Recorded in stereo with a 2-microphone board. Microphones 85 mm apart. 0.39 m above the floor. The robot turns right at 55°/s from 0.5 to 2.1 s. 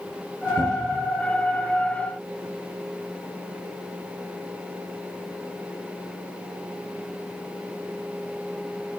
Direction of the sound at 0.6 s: 80° left.